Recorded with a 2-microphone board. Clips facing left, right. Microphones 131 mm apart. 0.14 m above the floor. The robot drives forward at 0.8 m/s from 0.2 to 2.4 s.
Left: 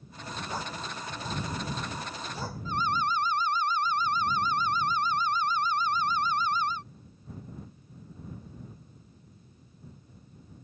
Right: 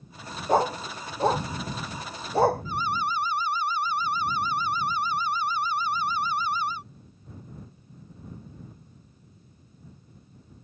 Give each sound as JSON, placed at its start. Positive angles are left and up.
{"t": 0.5, "sound": "a dog barking", "side_deg": -65}
{"t": 2.6, "sound": "an alarm", "side_deg": -10}